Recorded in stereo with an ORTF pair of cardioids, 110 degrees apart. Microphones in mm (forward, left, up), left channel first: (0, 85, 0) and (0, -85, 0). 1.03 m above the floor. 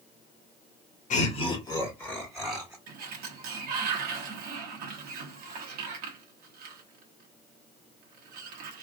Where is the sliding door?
65° right, 1.1 m.